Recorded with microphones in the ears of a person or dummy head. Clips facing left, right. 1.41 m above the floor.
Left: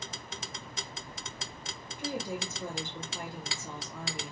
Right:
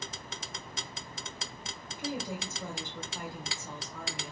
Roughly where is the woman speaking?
Left.